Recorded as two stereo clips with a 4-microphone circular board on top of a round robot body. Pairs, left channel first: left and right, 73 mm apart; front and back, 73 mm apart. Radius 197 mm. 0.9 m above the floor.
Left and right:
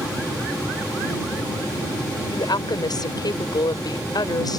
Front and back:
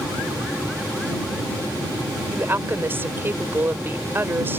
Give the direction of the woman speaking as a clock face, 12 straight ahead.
8 o'clock.